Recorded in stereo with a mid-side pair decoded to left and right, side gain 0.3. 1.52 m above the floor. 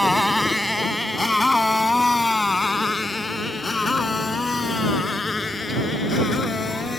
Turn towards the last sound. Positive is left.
turn(degrees=45)